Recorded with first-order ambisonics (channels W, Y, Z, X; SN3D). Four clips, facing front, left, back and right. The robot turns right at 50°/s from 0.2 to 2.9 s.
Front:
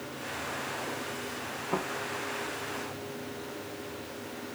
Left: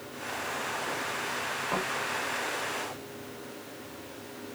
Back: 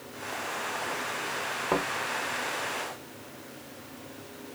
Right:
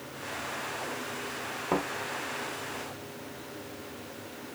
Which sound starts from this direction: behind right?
A thud, at 1.7 s.